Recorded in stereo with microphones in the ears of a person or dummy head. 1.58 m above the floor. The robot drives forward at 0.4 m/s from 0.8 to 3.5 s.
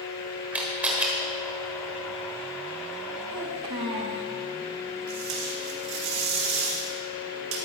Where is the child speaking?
30° right (ahead or behind), 1.0 m.